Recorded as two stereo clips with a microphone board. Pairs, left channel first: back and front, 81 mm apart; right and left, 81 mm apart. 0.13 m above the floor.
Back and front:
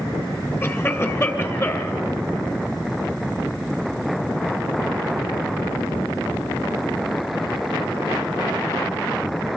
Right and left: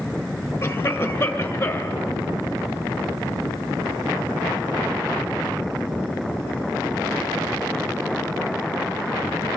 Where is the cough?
140° right, 2.5 m.